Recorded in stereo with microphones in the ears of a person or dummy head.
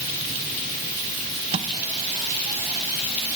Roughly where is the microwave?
Right.